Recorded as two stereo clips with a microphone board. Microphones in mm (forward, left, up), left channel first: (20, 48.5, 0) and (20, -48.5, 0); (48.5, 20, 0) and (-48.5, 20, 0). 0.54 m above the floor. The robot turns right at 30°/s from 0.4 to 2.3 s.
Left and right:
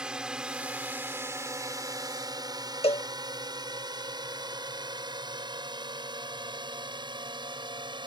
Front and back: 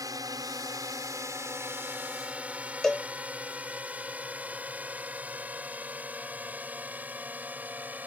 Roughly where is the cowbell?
Left.